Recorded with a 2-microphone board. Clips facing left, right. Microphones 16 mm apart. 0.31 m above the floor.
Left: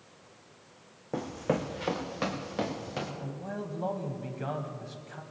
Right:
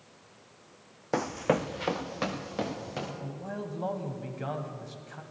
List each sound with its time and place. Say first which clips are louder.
1.1 s running footsteps: right 3 dB; 65° right (ahead or behind), 0.7 m; by 3.1 s centre (ahead or behind), 3 m
3.2 s a man speaking: even; 5° left (ahead or behind), 1.6 m